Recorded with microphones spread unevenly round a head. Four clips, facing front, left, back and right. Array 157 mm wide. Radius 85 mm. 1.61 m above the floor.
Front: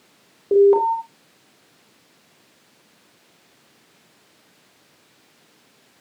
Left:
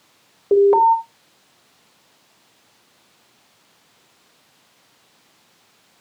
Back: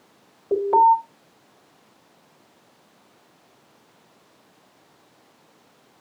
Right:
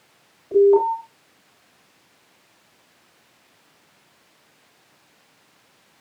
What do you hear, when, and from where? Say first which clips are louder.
0.5 s an alarm: left 2 dB, front 2 dB; 60° left, 3 m